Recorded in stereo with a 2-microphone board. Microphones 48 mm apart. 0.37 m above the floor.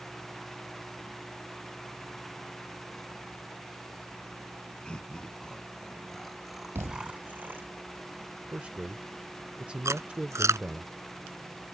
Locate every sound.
4.8 s laughter: 20° left (ahead or behind); by 7.7 s 40° right (ahead or behind)
6.8 s a thud: 60° right (ahead or behind)
8.5 s a man speaking: 25° right (ahead or behind)
9.8 s chewing: 85° right